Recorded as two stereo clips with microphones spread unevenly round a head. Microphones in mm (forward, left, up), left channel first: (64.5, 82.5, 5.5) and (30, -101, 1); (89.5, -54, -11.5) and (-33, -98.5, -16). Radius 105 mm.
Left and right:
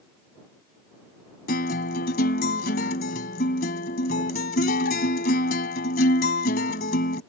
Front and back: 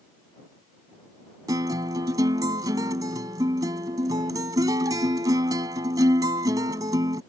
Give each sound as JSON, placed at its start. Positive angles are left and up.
{"t": 1.5, "sound": "a guitar", "azimuth_deg": 130}